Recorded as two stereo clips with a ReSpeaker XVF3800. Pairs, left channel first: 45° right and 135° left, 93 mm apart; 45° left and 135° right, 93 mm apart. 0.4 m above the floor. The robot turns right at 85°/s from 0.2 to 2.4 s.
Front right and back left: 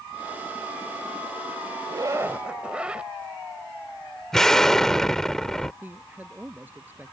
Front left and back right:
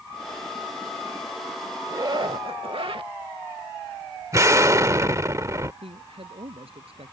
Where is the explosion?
125° right.